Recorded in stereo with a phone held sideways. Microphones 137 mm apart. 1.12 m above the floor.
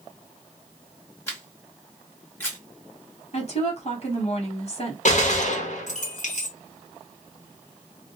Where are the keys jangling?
I don't hear keys jangling.